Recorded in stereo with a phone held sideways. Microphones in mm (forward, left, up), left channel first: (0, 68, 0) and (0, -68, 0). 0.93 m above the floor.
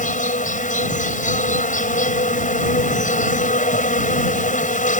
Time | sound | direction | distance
0.0 | an insect | 75° left (ahead or behind) | ?